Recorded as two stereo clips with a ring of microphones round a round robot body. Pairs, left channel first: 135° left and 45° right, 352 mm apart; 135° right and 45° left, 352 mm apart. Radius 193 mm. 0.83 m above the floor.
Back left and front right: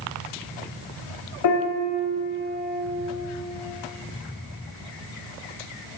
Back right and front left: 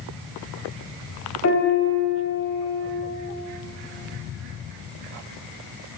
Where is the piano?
175° left, 4.5 m.